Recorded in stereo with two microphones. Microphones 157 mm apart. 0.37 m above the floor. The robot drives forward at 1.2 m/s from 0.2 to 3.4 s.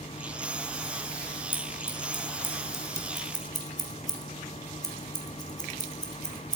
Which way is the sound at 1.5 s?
15° left (ahead or behind).